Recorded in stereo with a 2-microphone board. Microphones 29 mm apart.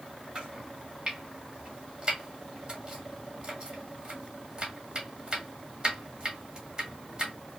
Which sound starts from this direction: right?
Chopping, at 0.3 s.